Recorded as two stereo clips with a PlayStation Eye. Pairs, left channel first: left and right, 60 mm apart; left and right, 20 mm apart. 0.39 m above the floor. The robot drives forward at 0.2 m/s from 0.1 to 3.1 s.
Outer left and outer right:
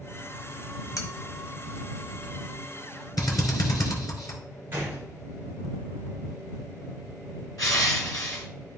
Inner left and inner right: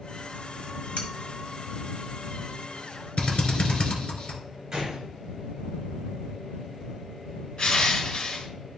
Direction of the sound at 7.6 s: 70° left (ahead or behind).